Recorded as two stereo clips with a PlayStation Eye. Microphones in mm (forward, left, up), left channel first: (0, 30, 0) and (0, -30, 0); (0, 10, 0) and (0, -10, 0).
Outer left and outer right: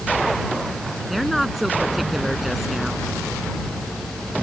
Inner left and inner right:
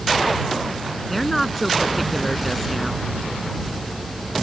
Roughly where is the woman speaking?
Centre.